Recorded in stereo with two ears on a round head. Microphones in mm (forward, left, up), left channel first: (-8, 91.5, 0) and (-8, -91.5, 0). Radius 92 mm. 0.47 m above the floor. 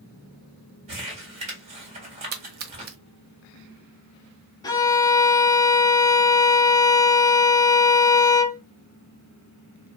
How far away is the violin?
About 0.5 m.